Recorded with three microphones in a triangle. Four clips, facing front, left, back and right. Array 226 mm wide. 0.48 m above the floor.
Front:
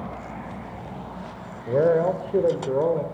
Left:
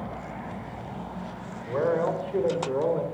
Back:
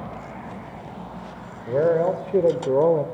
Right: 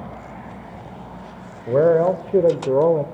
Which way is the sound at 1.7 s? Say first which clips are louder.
Right 10 dB, even; 85° right.